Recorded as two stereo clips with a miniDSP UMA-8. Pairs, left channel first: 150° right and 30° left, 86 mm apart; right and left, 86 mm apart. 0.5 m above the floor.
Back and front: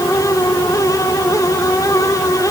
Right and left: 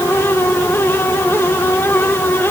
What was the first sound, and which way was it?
Only background noise.